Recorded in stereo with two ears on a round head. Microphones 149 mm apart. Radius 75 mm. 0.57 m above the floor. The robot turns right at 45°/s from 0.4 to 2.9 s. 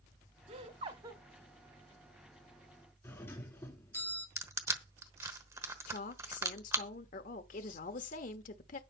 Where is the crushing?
20° right (ahead or behind), 1.2 m.